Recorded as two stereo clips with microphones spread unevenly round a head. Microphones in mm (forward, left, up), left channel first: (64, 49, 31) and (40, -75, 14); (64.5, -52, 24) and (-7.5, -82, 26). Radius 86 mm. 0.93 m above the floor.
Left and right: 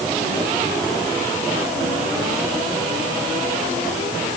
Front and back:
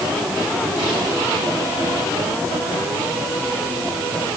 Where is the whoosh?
I don't hear a whoosh.